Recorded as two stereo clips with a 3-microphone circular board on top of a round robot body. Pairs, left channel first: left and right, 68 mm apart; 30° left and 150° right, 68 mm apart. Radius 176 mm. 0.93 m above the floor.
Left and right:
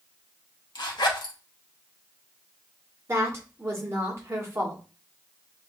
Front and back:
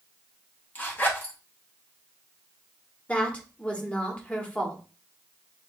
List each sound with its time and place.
0.8 s a zipper: 95° left, 1.0 m
3.1 s a woman speaking: 40° right, 1.8 m